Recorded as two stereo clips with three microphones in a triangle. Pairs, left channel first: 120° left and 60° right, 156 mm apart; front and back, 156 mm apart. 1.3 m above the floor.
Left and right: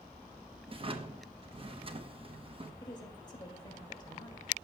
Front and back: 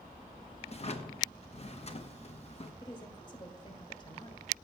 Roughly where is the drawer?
Ahead right.